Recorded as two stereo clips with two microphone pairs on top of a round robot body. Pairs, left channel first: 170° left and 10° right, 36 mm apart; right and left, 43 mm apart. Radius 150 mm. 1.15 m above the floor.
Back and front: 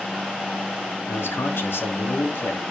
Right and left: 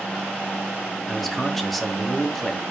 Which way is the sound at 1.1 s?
Straight behind.